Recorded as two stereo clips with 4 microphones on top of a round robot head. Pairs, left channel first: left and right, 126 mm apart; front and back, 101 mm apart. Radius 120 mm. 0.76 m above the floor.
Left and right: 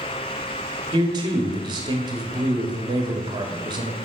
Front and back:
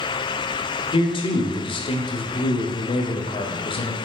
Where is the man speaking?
35° right, 1.5 m.